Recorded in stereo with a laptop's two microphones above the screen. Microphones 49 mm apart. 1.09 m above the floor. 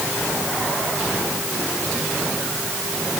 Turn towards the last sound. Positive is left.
No sound to turn to.